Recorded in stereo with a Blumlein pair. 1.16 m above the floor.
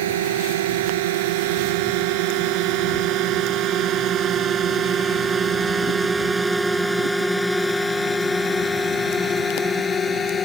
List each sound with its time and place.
0.0 s a drone: 55° right; by 10.4 s 20° left